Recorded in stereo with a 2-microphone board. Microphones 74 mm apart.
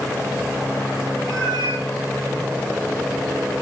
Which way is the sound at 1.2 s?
85° right.